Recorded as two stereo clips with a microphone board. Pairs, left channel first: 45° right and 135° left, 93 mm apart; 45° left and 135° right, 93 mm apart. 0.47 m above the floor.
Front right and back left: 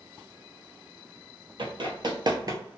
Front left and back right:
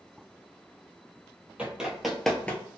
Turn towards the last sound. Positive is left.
turn(degrees=105)